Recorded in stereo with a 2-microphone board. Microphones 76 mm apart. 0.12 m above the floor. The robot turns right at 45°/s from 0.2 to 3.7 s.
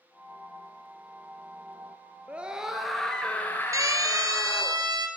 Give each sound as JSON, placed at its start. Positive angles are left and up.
{"t": 2.3, "sound": "a scream", "azimuth_deg": -25, "distance_m": 1.9}
{"t": 3.7, "sound": "a siren", "side_deg": -45, "distance_m": 2.5}